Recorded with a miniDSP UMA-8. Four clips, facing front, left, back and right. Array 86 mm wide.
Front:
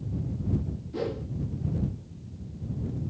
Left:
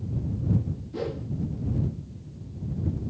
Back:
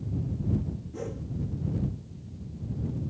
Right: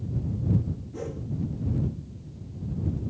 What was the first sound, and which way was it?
A whoosh, 35° left.